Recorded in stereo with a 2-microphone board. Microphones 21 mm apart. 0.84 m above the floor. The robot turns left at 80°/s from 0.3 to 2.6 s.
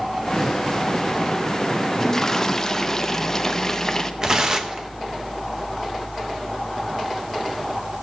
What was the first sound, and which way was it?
A toilet flushing, 25° left (ahead or behind).